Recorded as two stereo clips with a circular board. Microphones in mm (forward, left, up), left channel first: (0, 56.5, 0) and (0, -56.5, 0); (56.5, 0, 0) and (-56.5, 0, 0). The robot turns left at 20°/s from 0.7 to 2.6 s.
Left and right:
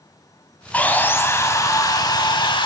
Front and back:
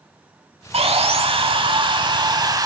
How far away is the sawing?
About 0.9 m.